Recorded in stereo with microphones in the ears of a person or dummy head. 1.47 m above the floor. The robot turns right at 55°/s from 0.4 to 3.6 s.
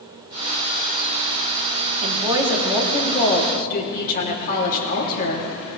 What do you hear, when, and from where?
2.0 s a woman speaking: 35° right, 3 m; by 5.5 s 50° left, 3 m